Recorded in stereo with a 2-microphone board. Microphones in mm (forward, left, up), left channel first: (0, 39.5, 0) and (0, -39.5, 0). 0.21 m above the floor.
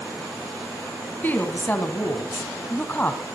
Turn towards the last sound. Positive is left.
turn(degrees=25)  # may be behind; listen again after turning